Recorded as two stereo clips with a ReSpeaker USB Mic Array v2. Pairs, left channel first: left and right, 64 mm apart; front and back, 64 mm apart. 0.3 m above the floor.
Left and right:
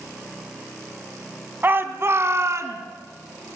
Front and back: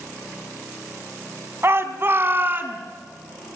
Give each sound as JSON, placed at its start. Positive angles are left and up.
{"t": 1.6, "sound": "a shout", "azimuth_deg": -140, "distance_m": 2.5}